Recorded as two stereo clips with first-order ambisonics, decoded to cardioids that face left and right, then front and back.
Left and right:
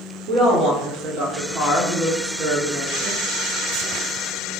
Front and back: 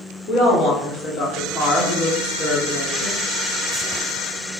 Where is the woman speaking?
45° right, 2 m.